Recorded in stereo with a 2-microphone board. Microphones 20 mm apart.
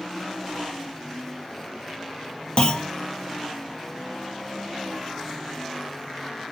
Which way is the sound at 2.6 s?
50° left (ahead or behind).